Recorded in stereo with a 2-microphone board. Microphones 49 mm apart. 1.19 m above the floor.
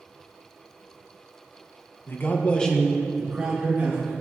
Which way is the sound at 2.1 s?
50° left (ahead or behind).